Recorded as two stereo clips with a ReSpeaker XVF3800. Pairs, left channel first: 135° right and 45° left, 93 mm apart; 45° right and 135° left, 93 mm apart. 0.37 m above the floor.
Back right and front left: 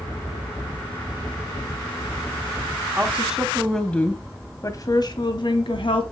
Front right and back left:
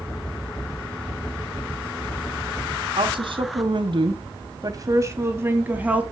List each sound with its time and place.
3.0 s a woman speaking: 120° left, 2.5 m; by 6.0 s 150° right, 3 m